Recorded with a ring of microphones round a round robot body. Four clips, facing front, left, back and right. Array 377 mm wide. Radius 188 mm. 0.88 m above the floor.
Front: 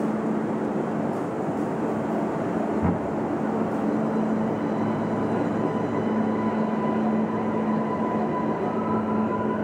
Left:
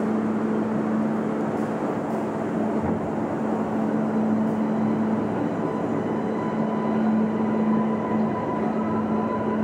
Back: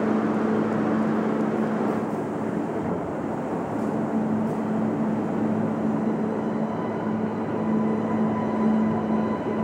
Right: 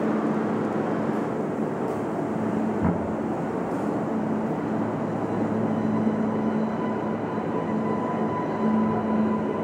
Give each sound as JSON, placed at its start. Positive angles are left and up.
{"t": 2.8, "sound": "knocking", "azimuth_deg": -60, "distance_m": 6.5}